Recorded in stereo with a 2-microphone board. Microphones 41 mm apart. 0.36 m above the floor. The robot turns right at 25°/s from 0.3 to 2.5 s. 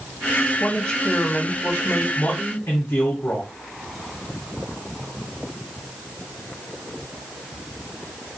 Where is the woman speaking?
15° left, 2 m; by 2.1 s 50° left, 2 m.